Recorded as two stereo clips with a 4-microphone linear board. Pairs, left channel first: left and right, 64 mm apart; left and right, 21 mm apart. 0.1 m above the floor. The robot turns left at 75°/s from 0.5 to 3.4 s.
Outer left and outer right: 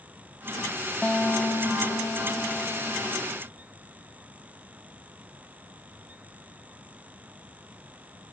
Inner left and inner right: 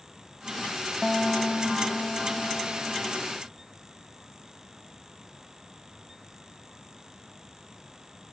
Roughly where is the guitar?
Behind.